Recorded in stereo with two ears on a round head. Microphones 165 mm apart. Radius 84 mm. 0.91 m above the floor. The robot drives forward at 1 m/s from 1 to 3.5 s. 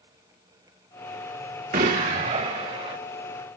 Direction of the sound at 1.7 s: 50° right (ahead or behind).